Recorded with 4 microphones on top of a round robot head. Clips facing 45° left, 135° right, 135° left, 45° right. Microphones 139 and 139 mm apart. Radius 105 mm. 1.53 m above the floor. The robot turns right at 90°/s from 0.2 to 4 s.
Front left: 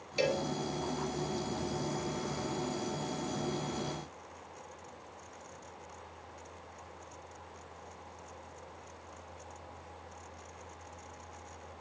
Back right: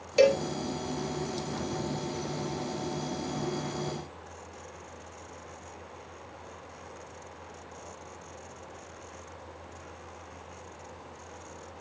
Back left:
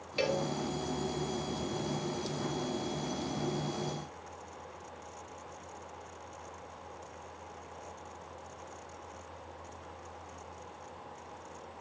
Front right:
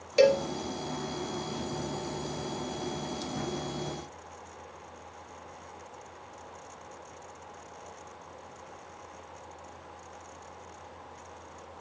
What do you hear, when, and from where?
0.2 s a cowbell: 95° right, 1.8 m; by 0.5 s 70° right, 1.8 m